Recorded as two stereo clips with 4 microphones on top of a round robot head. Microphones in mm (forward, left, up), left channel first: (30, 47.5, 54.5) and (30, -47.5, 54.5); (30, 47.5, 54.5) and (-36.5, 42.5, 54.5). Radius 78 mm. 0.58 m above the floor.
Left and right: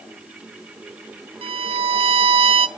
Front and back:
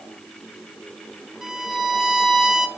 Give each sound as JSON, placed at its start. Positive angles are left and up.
{"t": 1.4, "sound": "a violin", "azimuth_deg": -95, "distance_m": 0.6}